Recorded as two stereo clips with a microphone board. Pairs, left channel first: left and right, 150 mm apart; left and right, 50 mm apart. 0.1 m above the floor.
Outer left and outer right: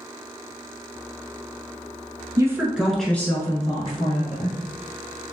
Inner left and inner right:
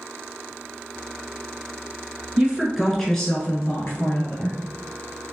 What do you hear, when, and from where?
2.4 s a woman speaking: 20° right (ahead or behind), 1.1 m; by 4.6 s 50° left (ahead or behind), 1.6 m